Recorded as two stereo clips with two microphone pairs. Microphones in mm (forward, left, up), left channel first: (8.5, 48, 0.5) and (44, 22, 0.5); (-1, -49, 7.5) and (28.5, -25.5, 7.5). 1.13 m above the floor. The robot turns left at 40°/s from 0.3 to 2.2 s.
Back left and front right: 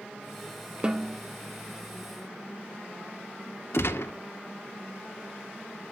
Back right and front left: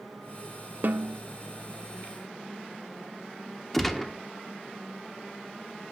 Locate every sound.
0.8 s a snare drum: 30° left, 1.0 m; by 1.2 s 15° left, 1.0 m
3.7 s a gunshot: 135° left, 1.2 m